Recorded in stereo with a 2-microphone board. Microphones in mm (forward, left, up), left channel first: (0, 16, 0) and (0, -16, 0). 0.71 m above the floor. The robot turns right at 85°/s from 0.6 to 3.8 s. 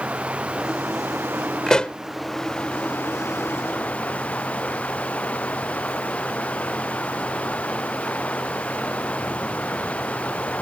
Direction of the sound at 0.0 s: 140° right.